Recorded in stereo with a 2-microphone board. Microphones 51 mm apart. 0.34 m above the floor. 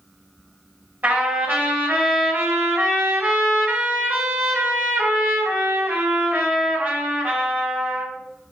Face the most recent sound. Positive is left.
turn(degrees=-30)  # may be behind; listen again after turning